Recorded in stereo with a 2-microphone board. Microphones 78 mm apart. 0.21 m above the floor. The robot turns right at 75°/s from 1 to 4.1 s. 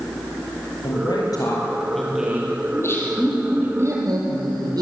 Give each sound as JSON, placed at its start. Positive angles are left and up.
{"t": 0.8, "sound": "a woman speaking", "azimuth_deg": 100, "distance_m": 6.0}
{"t": 2.7, "sound": "laughter", "azimuth_deg": 130, "distance_m": 6.5}